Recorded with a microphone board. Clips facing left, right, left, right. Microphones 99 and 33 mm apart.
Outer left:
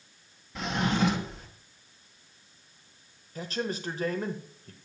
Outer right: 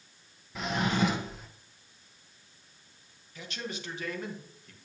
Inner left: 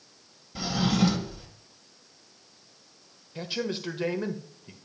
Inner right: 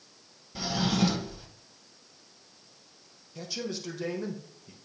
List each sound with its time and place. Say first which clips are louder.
0.6 s a drawer: outer left 1 dB, inner left 2 dB; 5° right (ahead or behind), 1.2 m
3.4 s a man speaking: outer left 7 dB, inner left 4 dB; 40° left (ahead or behind), 1.0 m